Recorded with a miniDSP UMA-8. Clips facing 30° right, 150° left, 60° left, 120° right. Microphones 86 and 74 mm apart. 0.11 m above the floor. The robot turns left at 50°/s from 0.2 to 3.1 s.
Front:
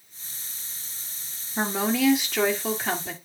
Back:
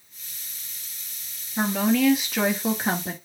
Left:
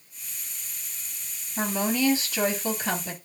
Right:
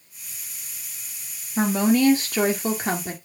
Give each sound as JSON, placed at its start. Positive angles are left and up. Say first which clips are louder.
{"t": 1.6, "sound": "a woman speaking", "louder": "back 3 dB, right 7 dB", "azimuth_deg": -90, "distance_m": 2.0}